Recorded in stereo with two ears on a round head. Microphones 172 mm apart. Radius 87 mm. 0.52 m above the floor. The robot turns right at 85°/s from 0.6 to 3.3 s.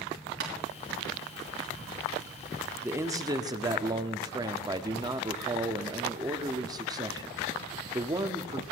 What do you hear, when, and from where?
0.4 s tapping: 70° right (ahead or behind), 5 m
2.8 s a man speaking: 10° right (ahead or behind), 0.8 m; by 8.6 s 20° right (ahead or behind), 0.8 m